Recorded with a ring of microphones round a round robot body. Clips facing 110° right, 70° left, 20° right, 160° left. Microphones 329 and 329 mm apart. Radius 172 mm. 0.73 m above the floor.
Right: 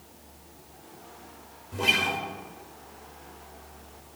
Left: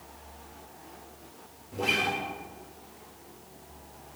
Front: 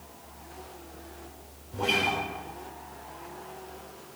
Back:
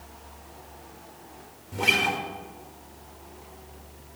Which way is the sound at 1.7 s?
175° left.